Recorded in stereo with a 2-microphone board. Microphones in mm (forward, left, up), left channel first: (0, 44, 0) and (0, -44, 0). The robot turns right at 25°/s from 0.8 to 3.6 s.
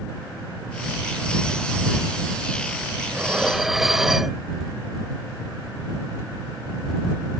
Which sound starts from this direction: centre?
Dishes clattering, at 3.1 s.